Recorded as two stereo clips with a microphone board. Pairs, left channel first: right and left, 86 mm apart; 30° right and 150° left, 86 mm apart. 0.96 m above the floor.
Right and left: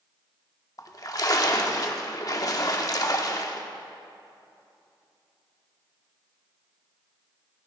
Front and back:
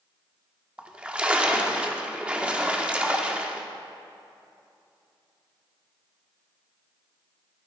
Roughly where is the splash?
Behind right.